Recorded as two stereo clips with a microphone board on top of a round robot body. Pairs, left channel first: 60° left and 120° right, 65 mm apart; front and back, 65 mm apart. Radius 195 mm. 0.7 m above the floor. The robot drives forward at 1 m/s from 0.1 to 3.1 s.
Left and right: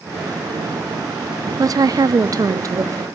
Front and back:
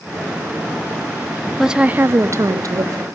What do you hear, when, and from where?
1.6 s a woman speaking: 90° right, 0.7 m; by 3.0 s 155° right, 1.6 m